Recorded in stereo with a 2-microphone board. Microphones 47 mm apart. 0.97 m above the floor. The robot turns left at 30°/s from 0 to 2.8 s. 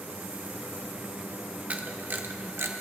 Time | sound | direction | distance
1.7 | a camera shutter | 30° right (ahead or behind) | 0.7 m